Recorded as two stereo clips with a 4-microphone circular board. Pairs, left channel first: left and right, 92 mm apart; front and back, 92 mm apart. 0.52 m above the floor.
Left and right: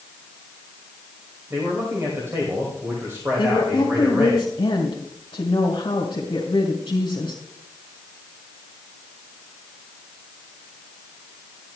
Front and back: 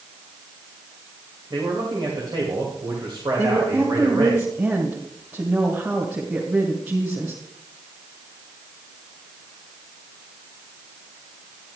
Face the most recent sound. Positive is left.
turn(degrees=110)